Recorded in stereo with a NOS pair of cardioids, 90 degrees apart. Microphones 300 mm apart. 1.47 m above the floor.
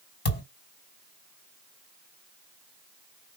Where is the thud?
35° left, 2.5 m.